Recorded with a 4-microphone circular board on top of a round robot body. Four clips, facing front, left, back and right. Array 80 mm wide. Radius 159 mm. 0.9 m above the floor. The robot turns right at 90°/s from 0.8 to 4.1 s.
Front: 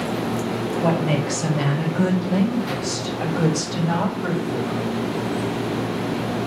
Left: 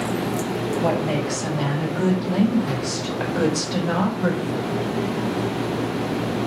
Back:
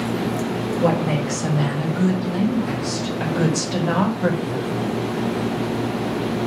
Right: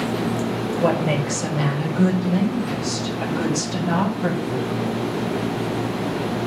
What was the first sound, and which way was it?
A woman speaking, 100° right.